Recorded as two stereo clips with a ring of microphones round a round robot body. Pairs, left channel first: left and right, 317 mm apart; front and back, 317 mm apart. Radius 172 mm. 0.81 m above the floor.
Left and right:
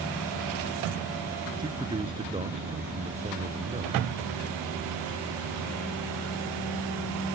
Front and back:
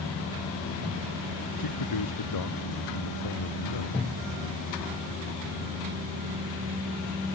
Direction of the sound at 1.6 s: 15° right.